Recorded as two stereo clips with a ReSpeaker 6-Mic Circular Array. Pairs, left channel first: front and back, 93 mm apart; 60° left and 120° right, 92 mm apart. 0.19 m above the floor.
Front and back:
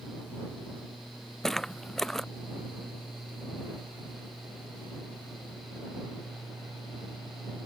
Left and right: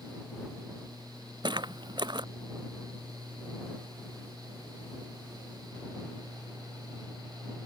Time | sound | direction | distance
1.4 | footsteps | 85° right | ?